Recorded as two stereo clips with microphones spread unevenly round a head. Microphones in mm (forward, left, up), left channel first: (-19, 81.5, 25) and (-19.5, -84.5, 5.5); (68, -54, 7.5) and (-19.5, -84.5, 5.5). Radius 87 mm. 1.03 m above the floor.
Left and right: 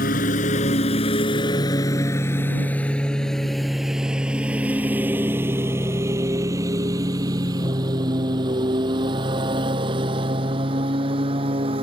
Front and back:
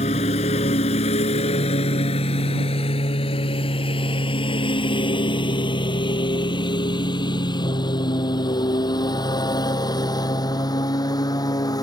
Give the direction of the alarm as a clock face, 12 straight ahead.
No alarm in this recording.